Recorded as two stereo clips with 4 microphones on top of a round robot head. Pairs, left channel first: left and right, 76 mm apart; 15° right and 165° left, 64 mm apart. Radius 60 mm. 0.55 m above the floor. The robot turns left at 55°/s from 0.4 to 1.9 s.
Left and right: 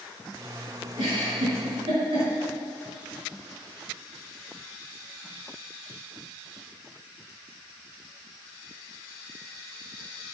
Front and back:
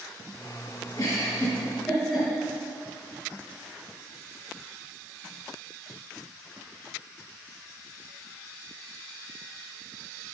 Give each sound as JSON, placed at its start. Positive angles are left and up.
{"t": 1.0, "sound": "a giggle", "azimuth_deg": -50, "distance_m": 4.5}